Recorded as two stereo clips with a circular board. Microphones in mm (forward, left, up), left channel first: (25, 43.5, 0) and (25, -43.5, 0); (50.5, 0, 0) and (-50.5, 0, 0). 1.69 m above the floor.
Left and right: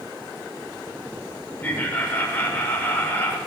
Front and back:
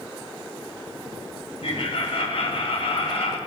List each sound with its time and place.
1.6 s laughter: 20° left, 7 m